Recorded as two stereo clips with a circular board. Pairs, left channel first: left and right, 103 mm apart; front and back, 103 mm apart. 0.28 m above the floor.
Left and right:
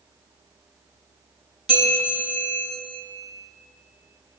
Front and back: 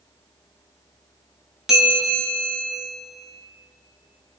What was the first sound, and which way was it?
A bell, 95° right.